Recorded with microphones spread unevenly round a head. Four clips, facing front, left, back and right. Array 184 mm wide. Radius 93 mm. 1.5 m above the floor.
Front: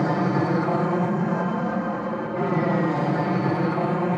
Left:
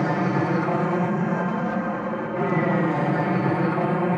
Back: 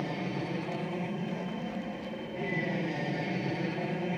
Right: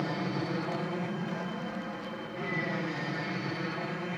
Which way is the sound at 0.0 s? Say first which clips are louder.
Left 10 dB, front 12 dB; 40° left.